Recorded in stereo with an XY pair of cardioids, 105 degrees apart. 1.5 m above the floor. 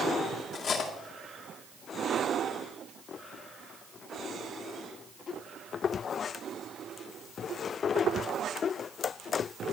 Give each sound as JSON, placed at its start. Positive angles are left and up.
{"t": 0.5, "sound": "cutlery clinking", "azimuth_deg": 55, "distance_m": 2.0}